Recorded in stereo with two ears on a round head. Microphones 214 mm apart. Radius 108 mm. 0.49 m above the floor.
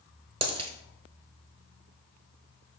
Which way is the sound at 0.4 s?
25° right (ahead or behind).